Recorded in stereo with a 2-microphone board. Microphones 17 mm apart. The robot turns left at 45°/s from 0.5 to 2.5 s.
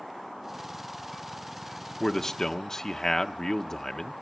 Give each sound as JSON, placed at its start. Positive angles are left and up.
{"t": 2.0, "sound": "a man speaking", "side_deg": 25, "distance_m": 1.0}